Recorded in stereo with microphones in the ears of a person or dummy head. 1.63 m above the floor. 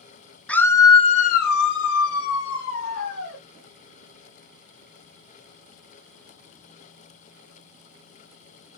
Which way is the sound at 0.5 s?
10° left (ahead or behind).